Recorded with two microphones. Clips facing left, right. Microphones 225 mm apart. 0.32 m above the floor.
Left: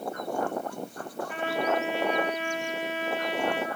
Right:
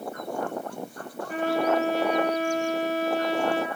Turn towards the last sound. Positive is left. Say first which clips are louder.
# right 5 dB
turn(degrees=-40)  # may be behind; listen again after turning